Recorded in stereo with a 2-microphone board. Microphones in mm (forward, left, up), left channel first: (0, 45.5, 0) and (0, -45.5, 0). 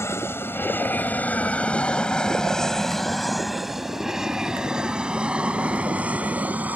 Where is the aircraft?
30° left (ahead or behind); by 6.8 s 15° right (ahead or behind).